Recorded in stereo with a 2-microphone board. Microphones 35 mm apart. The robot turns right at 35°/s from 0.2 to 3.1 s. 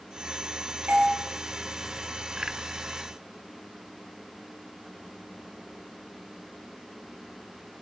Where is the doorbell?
55° right (ahead or behind), 4 m; by 1.1 s 50° right (ahead or behind), 4 m.